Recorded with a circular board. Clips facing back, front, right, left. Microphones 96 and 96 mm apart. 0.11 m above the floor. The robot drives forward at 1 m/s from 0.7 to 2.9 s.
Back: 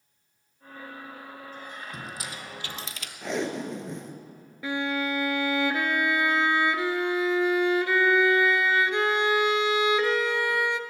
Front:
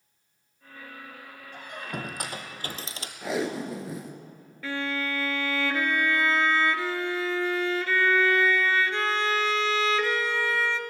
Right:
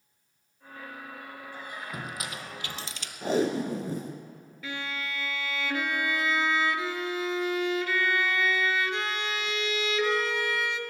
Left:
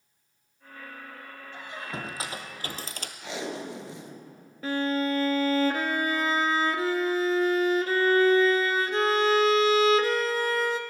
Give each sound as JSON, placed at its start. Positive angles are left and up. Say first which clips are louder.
{"t": 1.5, "sound": "a squeak", "louder": "front 6 dB, left 3 dB", "azimuth_deg": 20, "distance_m": 2.0}
{"t": 3.2, "sound": "tape being pulled", "louder": "front 1 dB, right 9 dB", "azimuth_deg": -80, "distance_m": 1.3}
{"t": 4.6, "sound": "a violin", "louder": "back 3 dB, left 10 dB", "azimuth_deg": 115, "distance_m": 0.7}